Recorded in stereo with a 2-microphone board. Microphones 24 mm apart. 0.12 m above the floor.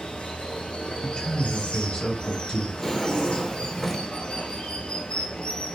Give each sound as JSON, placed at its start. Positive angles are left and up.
{"t": 0.0, "sound": "running water", "side_deg": 50, "distance_m": 0.7}
{"t": 1.0, "sound": "a man speaking", "side_deg": 35, "distance_m": 1.5}
{"t": 2.8, "sound": "a drawer", "side_deg": 15, "distance_m": 0.6}